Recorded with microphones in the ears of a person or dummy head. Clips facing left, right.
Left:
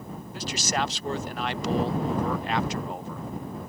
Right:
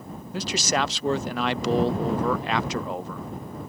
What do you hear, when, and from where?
0.3 s a man speaking: 65° right (ahead or behind)